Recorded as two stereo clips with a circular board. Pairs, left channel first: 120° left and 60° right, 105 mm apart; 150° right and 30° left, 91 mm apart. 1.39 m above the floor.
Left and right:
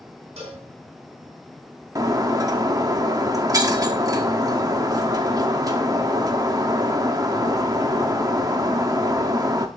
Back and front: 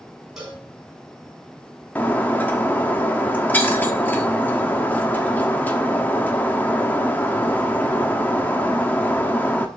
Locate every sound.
0.4 s a cowbell: 55° right, 6 m
1.9 s breaking glass: 90° right, 1.1 m